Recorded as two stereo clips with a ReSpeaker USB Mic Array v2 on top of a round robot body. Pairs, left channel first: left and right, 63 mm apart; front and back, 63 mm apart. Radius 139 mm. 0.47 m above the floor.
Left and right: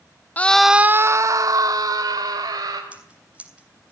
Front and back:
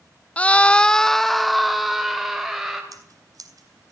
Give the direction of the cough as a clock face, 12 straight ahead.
I don't hear a cough.